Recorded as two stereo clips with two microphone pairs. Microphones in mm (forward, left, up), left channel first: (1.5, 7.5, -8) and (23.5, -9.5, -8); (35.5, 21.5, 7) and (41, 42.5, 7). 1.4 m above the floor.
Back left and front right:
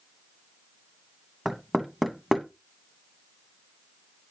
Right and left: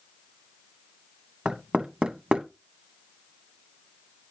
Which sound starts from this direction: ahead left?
Knocking, at 1.4 s.